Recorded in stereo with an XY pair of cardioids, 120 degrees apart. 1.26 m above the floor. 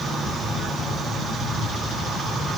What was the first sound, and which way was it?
Only background noise.